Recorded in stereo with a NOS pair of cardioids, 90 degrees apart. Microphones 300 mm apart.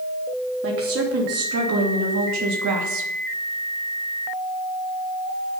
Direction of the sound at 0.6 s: 45° right.